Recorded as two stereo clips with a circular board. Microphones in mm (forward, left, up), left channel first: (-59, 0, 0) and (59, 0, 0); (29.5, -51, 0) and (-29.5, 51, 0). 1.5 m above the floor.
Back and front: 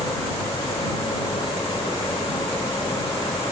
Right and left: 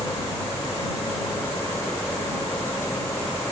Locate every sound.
0.0 s a vehicle: 130° right